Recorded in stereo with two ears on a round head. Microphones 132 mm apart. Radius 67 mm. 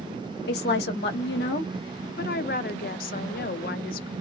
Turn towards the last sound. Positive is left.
turn(degrees=60)  # may be behind; listen again after turning